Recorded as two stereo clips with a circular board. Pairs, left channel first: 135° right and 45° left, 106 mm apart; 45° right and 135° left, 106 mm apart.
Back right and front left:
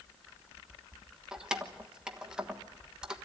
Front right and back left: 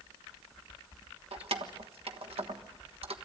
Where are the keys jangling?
125° left, 1.3 m.